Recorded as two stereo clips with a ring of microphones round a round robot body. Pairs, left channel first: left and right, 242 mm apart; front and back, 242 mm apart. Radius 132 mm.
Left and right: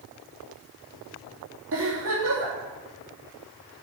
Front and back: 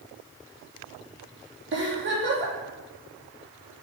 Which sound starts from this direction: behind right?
A giggle, at 1.7 s.